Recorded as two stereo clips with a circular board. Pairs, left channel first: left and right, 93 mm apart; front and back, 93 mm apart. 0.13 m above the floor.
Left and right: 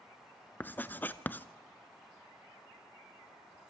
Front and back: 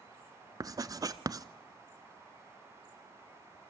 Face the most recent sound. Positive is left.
turn(degrees=150)